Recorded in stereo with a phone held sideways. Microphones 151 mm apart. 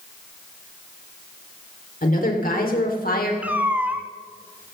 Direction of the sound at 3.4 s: 10° right (ahead or behind).